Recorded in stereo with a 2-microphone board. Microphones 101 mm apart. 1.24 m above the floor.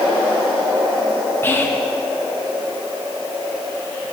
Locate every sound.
1.4 s whispering: 20° left (ahead or behind), 0.5 m